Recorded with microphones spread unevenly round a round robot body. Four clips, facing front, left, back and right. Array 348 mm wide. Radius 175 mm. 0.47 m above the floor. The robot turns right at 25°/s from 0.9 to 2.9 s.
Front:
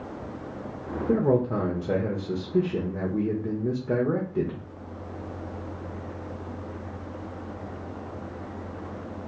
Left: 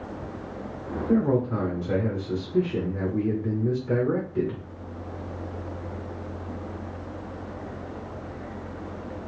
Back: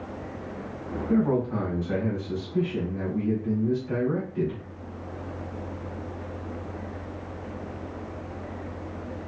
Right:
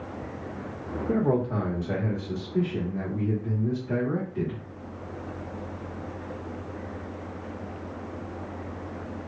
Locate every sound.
1.1 s a man speaking: 25° right, 1.2 m; by 4.6 s 20° left, 1.2 m